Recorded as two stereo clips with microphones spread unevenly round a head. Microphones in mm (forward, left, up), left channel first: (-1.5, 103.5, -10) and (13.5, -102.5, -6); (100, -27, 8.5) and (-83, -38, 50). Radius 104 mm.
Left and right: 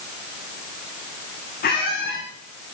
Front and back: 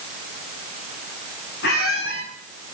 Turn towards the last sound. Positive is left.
turn(degrees=50)